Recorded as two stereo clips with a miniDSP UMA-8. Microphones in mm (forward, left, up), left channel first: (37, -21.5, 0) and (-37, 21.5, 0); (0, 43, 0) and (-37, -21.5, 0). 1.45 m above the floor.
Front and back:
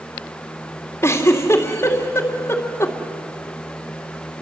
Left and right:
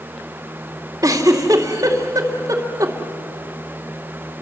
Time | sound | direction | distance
1.0 | a giggle | 85° right | 2 m